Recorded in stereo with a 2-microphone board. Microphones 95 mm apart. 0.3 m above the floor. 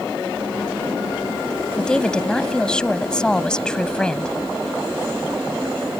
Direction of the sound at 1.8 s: 10° left (ahead or behind).